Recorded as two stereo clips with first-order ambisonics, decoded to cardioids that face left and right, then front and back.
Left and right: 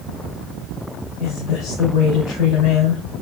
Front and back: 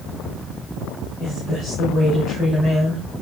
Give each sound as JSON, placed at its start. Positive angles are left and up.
{"t": 1.2, "sound": "a woman speaking", "azimuth_deg": 80, "distance_m": 4.0}